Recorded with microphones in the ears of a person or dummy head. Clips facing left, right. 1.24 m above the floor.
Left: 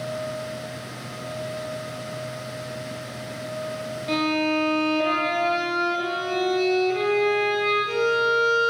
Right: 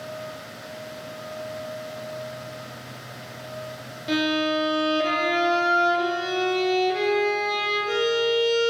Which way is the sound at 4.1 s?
10° right (ahead or behind).